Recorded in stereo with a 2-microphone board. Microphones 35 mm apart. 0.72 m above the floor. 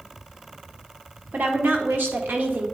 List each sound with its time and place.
1.3 s a woman speaking: 70° right (ahead or behind), 1.5 m